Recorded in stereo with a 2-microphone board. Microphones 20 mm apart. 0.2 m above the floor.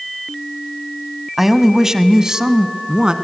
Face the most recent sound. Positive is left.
turn(degrees=-50)  # may be behind; listen again after turning